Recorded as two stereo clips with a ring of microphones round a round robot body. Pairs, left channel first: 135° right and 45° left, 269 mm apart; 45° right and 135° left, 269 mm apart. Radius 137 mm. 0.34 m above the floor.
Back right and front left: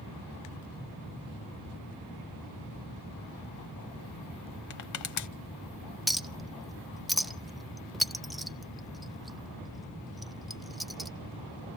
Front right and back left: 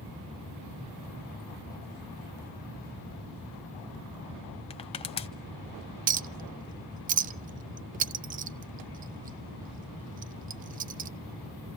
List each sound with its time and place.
4.7 s crushing: 115° right, 1.0 m
6.1 s a clink: 135° left, 0.5 m